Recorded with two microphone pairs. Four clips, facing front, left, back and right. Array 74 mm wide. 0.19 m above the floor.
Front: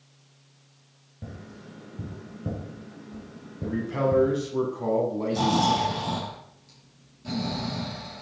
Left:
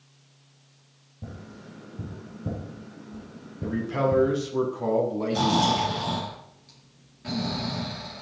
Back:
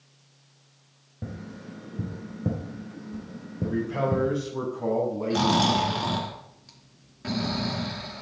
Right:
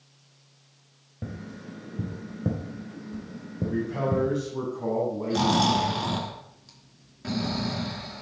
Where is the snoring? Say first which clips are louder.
Right 1 dB, back 1 dB; 160° right, 2.5 m.